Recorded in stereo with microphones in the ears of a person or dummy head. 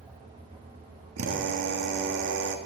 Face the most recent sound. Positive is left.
turn(degrees=-75)  # may be behind; listen again after turning